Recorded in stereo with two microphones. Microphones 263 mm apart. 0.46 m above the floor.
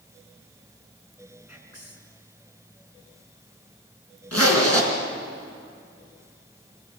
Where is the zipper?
70° left (ahead or behind), 4 m.